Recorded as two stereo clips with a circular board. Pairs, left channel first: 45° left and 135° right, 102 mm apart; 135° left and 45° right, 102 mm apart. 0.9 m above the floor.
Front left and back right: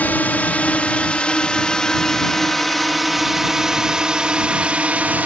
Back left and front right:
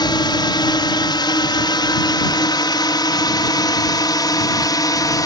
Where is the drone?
115° left; by 5.3 s 160° left.